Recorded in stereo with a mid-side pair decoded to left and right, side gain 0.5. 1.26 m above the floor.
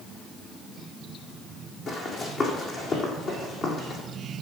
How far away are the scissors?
No scissors in this recording.